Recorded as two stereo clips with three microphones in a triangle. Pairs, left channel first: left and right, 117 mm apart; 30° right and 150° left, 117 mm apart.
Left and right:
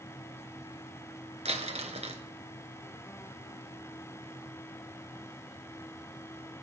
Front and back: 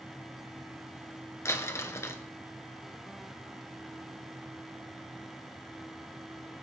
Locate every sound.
1.4 s crumpling: 95° right, 1.2 m